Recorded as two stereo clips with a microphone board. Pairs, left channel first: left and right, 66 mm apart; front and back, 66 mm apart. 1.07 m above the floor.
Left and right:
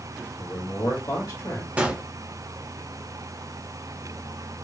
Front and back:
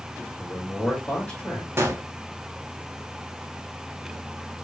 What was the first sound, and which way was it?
A man speaking, 70° left.